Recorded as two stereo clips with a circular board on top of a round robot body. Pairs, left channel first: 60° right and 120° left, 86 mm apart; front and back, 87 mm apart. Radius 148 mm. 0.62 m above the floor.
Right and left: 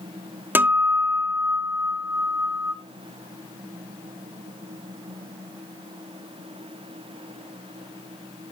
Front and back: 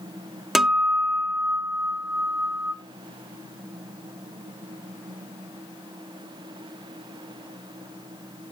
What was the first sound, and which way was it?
A guitar, 95° left.